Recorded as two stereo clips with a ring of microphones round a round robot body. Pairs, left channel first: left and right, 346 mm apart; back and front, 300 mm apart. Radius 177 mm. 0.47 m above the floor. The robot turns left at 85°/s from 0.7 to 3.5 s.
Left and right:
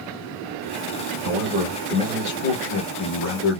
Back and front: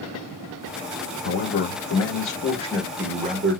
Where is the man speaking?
130° right, 1.5 m; by 3.6 s 40° left, 1.5 m.